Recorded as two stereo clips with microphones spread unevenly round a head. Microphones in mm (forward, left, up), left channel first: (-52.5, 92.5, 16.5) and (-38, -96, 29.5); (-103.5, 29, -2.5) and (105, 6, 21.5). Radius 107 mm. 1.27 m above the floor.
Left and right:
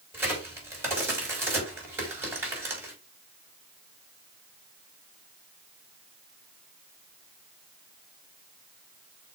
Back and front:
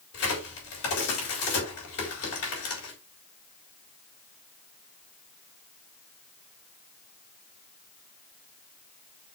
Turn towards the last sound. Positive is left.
turn(degrees=-165)